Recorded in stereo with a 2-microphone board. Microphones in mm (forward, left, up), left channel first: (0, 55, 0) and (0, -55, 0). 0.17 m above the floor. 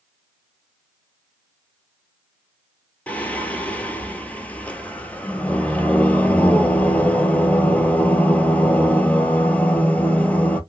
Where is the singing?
15° left (ahead or behind), 0.6 m.